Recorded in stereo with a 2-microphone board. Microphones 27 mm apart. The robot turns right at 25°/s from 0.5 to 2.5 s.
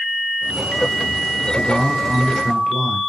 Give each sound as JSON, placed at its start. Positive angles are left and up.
{"t": 1.5, "sound": "a man speaking", "side_deg": -25, "distance_m": 3.5}